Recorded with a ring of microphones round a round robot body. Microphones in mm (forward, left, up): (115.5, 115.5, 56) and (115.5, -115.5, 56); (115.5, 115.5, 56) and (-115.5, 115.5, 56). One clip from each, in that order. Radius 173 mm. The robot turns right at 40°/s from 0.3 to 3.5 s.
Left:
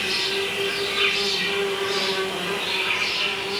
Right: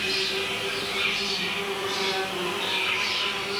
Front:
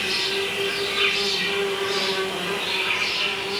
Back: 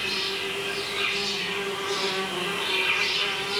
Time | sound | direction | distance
0.0 | an insect | 50° left | 2 m